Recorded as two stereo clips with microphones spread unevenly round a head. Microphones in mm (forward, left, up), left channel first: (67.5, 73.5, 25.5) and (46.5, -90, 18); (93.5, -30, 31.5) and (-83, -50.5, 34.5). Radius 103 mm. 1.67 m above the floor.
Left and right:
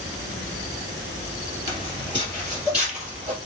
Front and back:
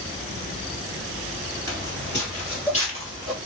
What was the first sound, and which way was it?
Footsteps, 70° left.